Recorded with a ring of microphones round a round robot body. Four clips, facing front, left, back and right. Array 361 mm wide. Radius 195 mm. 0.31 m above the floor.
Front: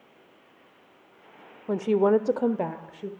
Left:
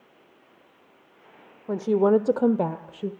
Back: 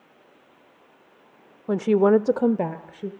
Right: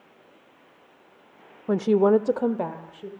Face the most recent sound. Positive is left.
turn(degrees=115)